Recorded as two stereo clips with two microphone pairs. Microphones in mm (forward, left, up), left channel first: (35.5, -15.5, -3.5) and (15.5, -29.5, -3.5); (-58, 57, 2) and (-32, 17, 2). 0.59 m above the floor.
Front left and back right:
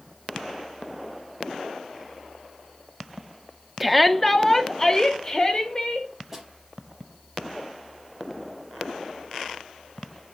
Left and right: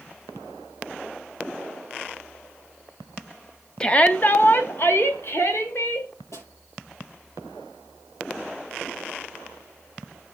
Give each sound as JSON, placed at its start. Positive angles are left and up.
{"t": 3.8, "sound": "a shout", "azimuth_deg": 135, "distance_m": 0.6}
{"t": 6.3, "sound": "a snare drum", "azimuth_deg": 135, "distance_m": 5.0}